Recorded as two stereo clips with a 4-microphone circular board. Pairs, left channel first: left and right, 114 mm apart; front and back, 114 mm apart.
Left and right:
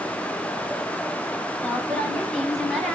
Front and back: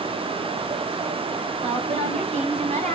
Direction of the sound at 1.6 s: 165° left.